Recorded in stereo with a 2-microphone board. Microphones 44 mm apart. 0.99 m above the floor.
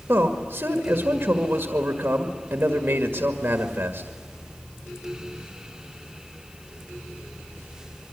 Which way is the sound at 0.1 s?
50° right (ahead or behind).